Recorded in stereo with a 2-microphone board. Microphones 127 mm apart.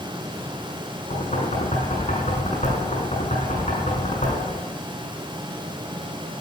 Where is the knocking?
65° left (ahead or behind), 6 m.